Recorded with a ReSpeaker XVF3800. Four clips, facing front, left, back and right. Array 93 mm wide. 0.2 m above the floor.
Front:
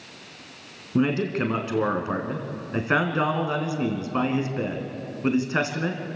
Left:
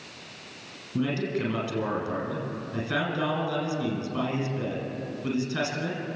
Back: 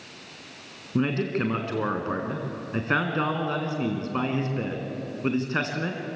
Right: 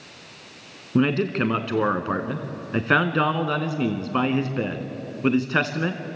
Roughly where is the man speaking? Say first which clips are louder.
Right 7 dB, front 2 dB; right.